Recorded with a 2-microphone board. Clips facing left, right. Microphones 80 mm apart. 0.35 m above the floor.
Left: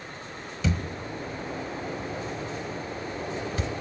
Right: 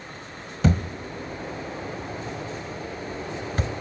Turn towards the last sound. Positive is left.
turn(degrees=-45)  # may be behind; listen again after turning